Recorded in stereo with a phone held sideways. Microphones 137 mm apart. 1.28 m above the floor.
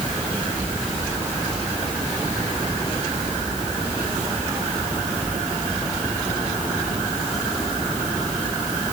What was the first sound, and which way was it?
Only background noise.